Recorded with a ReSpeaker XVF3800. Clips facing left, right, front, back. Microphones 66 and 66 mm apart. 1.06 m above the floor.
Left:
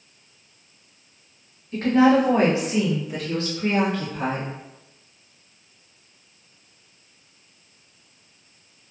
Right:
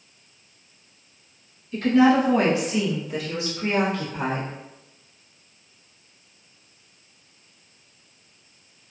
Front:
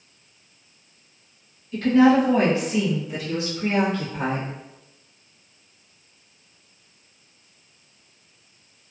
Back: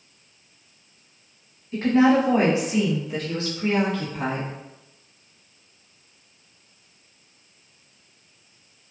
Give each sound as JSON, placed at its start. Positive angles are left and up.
{"t": 1.7, "sound": "a woman speaking", "azimuth_deg": 130, "distance_m": 1.2}